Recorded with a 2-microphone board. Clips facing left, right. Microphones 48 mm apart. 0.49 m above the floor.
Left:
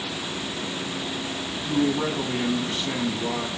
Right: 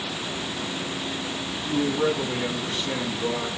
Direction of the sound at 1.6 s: 15° left (ahead or behind).